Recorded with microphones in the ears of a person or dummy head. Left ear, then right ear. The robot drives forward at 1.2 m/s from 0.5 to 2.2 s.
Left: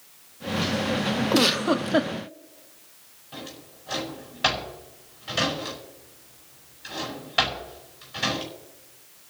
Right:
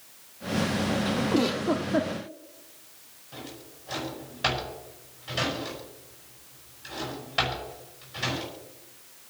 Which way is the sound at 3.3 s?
30° left (ahead or behind).